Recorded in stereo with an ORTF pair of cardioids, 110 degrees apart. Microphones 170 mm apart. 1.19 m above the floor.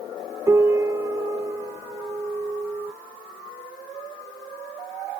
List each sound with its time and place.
0.5 s a piano: 15° right